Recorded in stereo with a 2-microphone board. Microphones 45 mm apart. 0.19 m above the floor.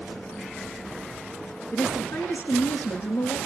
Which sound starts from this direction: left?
A woman speaking, at 1.7 s.